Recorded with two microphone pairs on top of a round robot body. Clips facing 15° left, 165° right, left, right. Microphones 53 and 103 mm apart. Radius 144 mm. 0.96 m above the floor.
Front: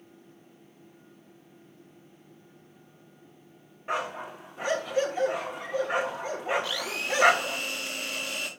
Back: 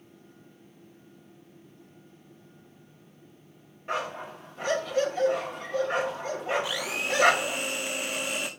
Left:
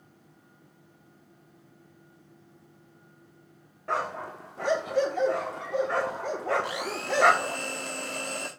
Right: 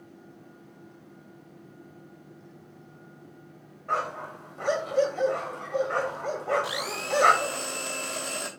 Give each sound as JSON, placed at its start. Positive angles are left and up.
{"t": 3.9, "sound": "a dog barking", "azimuth_deg": 90, "distance_m": 1.1}
{"t": 6.6, "sound": "a blender", "azimuth_deg": 110, "distance_m": 0.5}